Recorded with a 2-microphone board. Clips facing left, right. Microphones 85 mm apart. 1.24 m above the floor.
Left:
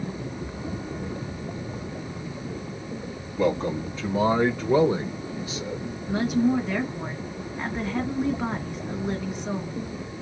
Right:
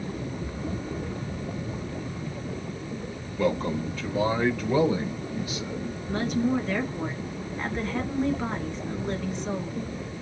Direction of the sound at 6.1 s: 10° left (ahead or behind).